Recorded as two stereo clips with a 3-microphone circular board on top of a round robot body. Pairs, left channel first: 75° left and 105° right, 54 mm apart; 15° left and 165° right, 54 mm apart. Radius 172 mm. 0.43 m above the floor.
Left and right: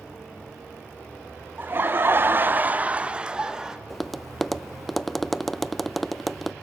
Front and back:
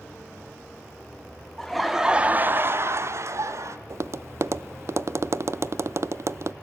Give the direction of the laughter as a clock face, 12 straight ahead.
2 o'clock.